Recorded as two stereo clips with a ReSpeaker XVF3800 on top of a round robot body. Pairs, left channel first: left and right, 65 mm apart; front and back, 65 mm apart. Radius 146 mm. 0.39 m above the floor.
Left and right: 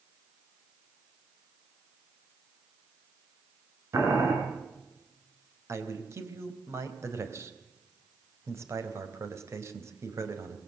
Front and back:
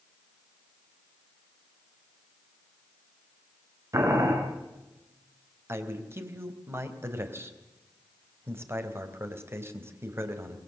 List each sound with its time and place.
3.9 s boiling: 135° right, 6.5 m
5.7 s a man speaking: 130° right, 4 m